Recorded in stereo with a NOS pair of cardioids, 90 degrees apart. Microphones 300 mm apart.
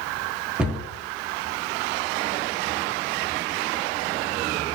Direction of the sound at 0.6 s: 5° right.